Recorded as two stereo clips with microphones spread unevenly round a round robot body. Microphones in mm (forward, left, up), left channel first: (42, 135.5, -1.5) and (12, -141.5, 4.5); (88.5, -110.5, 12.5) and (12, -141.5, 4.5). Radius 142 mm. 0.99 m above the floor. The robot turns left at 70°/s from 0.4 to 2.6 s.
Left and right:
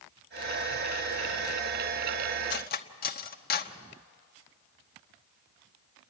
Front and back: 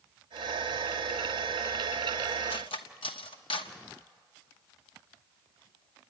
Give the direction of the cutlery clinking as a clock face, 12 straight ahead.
11 o'clock.